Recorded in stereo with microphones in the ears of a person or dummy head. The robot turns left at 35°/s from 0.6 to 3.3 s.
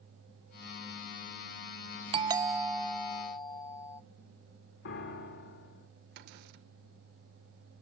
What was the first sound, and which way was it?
A doorbell, 150° right.